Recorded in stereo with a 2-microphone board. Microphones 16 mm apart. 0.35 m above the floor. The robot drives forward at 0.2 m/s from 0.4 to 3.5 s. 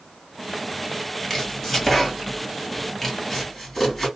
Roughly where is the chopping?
Centre.